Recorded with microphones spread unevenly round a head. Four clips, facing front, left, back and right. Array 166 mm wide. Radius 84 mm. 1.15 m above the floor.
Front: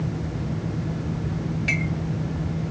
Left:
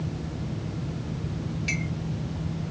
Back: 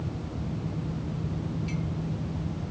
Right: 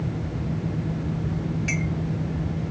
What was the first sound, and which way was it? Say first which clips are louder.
A clink: right 4 dB, front 6 dB; 20° right.